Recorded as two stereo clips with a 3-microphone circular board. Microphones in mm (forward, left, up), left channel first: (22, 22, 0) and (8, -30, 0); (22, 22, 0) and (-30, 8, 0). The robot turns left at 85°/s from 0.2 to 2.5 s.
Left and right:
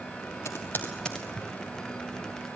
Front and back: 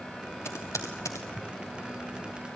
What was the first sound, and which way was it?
Typing on a keyboard, 50° left.